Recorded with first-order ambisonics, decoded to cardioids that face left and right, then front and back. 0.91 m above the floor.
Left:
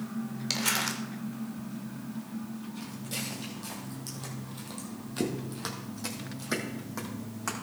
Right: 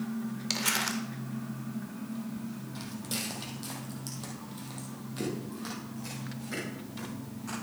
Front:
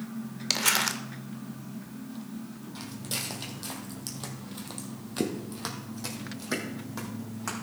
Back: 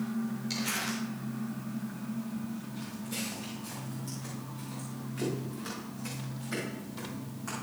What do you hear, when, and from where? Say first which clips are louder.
0.5 s crumpling: left 1 dB, front 9 dB; straight ahead, 0.8 m
2.8 s footsteps: right 1 dB, front 5 dB; 35° right, 2.5 m; by 7.5 s 55° left, 3.5 m